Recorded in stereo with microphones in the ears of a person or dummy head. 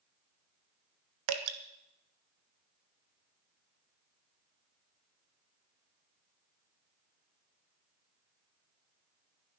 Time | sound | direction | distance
1.3 | dripping | 80° right | 1.1 m